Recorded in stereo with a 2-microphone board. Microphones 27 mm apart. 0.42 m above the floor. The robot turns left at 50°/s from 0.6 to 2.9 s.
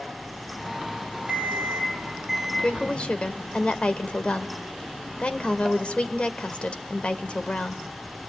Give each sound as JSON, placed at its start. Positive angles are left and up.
{"t": 1.3, "sound": "an alarm clock", "azimuth_deg": -125, "distance_m": 8.5}
{"t": 2.6, "sound": "a woman speaking", "side_deg": 45, "distance_m": 1.4}